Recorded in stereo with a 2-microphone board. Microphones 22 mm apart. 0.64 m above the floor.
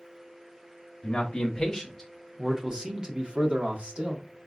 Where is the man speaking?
40° left (ahead or behind), 0.9 m; by 4.2 s 60° right (ahead or behind), 1.3 m.